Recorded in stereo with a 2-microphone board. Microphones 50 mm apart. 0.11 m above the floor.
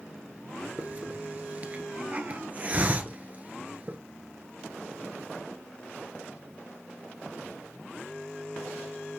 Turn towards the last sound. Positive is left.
turn(degrees=-30)  # may be behind; listen again after turning